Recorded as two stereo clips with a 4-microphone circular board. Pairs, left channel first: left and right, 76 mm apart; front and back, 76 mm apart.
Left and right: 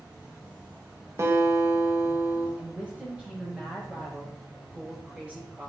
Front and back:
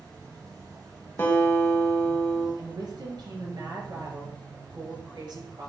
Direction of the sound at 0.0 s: 150° right.